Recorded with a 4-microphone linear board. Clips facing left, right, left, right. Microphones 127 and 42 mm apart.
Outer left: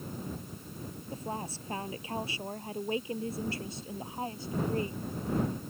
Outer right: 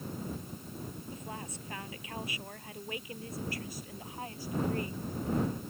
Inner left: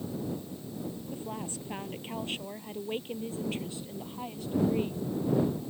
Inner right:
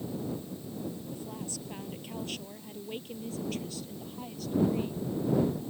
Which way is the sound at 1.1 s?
35° left (ahead or behind).